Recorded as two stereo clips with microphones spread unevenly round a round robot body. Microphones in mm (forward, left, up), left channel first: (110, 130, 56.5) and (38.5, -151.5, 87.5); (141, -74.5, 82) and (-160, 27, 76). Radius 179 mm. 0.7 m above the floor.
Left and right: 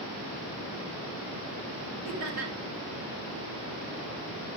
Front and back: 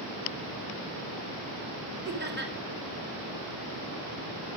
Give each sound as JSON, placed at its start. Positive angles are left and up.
{"t": 2.0, "sound": "laughter", "azimuth_deg": -140, "distance_m": 3.5}